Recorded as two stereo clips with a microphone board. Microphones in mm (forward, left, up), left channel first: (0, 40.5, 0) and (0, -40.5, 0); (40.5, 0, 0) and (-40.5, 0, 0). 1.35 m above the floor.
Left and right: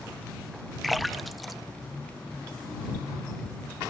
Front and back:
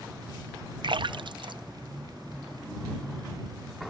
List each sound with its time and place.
0.8 s a splash: straight behind